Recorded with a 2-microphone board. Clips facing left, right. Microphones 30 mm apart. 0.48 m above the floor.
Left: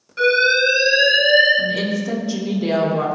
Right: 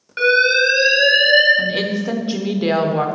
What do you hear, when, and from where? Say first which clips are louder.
0.2 s an alarm: right 1 dB; 50° right (ahead or behind), 3.5 m
1.6 s a woman speaking: right 1 dB; 45° right (ahead or behind), 1.0 m